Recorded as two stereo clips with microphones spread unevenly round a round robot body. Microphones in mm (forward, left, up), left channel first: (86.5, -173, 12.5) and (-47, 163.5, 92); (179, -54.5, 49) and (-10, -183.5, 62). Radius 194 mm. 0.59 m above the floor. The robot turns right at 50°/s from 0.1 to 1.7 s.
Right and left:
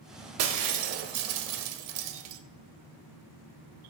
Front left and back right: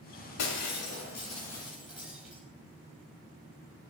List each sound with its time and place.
0.4 s breaking glass: 65° left, 0.8 m; by 2.4 s 130° left, 0.8 m